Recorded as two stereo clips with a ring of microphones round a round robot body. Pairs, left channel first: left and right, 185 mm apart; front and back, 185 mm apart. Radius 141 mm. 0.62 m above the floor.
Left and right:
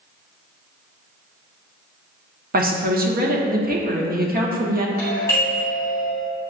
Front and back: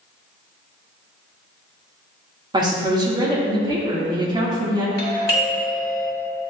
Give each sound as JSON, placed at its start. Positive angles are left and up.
{"t": 2.5, "sound": "a woman speaking", "azimuth_deg": -115, "distance_m": 1.2}
{"t": 5.0, "sound": "a doorbell", "azimuth_deg": 15, "distance_m": 2.0}